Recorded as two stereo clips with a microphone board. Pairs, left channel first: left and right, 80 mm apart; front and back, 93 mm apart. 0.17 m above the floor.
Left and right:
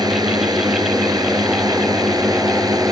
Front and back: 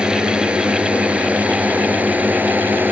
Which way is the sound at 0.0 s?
100° right.